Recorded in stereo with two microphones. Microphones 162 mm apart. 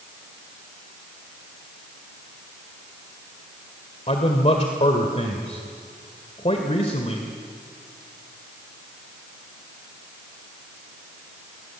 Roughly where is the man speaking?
Left.